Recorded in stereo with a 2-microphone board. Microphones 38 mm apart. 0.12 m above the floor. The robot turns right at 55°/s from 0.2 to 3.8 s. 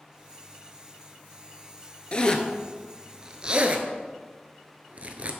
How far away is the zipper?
About 0.7 m.